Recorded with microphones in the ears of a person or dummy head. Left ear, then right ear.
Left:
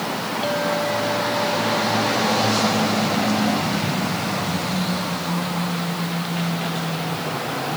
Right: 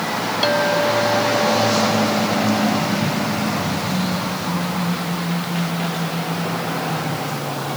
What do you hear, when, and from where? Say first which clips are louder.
0.4 s a clink: right 5 dB; 55° right (ahead or behind)